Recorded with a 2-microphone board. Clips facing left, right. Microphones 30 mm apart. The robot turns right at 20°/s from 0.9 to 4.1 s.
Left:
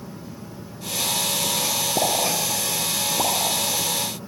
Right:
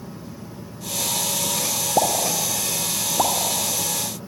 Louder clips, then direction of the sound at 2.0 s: Right 3 dB; 70° right (ahead or behind).